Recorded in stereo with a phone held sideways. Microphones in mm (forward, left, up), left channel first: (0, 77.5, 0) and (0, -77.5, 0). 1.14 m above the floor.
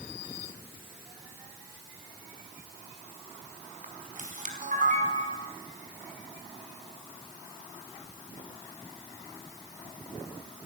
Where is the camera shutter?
55° right (ahead or behind), 3.5 m.